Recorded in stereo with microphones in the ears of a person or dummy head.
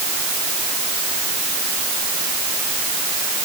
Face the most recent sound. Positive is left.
No sound to turn to.